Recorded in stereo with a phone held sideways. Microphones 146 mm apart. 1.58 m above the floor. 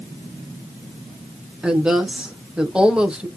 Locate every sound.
1.6 s a woman speaking: 5° right (ahead or behind), 1.1 m